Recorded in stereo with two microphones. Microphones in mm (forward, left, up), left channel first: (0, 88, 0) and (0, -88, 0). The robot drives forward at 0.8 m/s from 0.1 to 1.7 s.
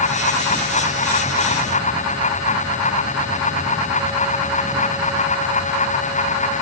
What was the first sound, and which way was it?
Only background noise.